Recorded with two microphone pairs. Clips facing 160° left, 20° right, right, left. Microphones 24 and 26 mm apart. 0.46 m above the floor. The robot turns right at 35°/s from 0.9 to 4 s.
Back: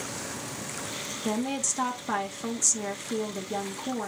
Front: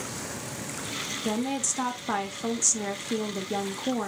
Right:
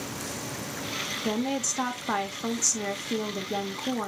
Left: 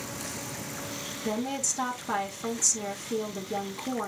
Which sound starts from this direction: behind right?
A woman speaking, at 1.2 s.